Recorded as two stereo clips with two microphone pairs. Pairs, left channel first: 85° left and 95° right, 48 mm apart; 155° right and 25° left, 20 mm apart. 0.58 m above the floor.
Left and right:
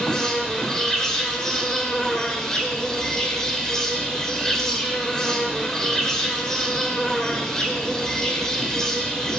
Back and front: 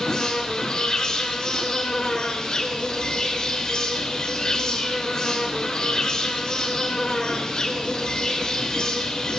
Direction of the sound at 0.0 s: 160° left.